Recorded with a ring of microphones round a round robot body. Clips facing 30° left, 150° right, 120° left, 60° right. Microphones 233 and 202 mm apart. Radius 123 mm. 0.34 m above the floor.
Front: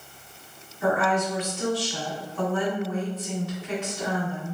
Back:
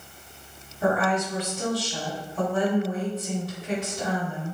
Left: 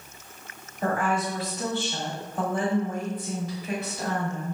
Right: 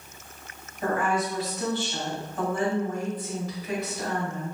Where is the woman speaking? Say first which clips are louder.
Even, even; 175° left, 1.2 m.